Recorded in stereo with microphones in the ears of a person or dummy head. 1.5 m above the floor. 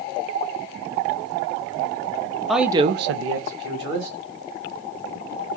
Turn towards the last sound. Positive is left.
turn(degrees=-65)  # may be behind; listen again after turning